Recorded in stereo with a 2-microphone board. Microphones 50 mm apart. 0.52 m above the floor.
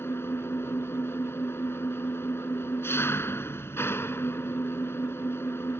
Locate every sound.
0.0 s an engine running: 60° left (ahead or behind)